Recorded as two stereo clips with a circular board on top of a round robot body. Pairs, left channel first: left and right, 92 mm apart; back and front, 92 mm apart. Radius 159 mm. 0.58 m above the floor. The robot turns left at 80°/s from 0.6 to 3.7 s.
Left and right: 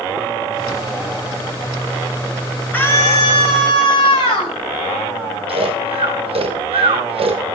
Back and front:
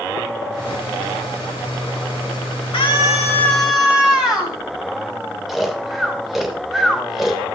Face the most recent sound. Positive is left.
turn(degrees=-85)